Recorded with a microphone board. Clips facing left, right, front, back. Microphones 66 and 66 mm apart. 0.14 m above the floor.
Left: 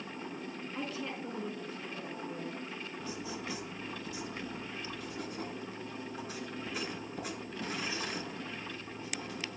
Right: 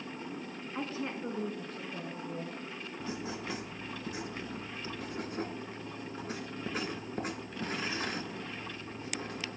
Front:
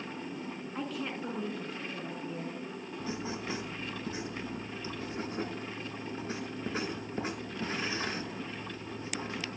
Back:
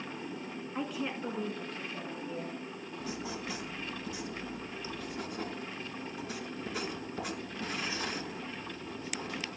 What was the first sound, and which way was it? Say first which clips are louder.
A woman speaking: right 3 dB, back 1 dB; 110° right.